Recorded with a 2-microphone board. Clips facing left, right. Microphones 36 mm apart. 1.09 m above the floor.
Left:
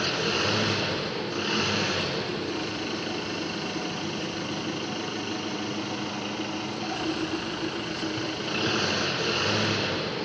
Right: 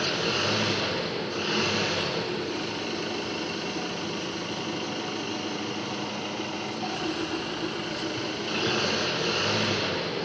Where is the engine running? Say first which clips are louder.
Even; 10° left (ahead or behind), 4.5 m.